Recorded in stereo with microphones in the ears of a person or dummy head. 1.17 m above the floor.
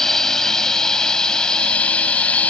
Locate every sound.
0.0 s a drone: 5° left (ahead or behind); by 2.5 s 10° left (ahead or behind)